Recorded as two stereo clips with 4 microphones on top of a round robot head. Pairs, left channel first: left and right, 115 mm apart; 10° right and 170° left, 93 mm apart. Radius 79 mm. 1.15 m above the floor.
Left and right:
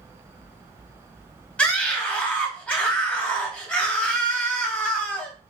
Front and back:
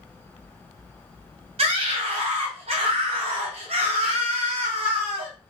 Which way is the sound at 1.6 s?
170° left.